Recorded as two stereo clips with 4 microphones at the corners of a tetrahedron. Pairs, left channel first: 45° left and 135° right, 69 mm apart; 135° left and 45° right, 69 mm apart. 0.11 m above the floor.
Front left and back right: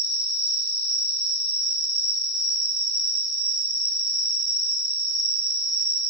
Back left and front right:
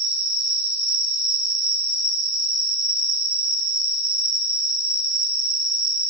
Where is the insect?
125° right, 3 m.